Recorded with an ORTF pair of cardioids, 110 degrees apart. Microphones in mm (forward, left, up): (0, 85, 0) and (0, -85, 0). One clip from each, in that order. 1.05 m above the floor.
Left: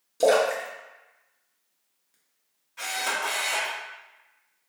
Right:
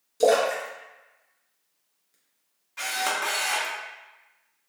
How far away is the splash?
About 0.7 m.